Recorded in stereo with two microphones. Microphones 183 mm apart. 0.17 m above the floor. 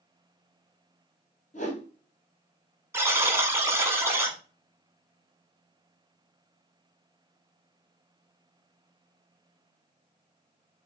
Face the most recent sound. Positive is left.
turn(degrees=-15)  # may be behind; listen again after turning